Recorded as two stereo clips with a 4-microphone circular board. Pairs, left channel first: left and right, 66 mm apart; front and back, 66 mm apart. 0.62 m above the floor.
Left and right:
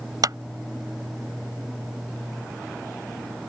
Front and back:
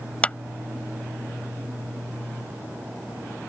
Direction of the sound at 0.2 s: 70° right.